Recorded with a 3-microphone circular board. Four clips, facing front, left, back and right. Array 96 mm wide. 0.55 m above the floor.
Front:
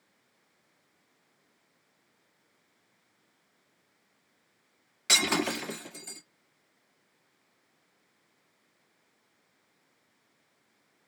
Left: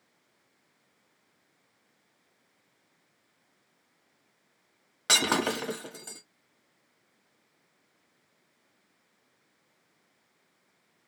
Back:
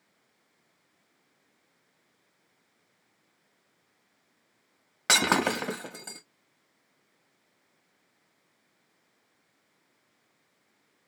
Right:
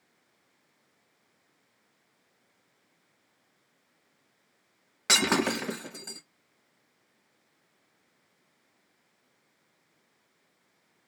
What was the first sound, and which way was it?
Breaking glass, straight behind.